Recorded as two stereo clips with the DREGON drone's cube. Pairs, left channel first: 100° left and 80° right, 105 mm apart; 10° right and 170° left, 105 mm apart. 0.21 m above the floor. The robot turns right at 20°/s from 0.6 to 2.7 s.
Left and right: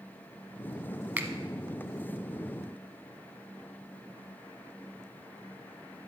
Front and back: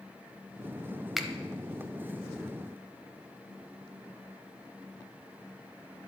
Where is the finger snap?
105° right, 0.8 m; by 1.3 s 100° right, 0.8 m.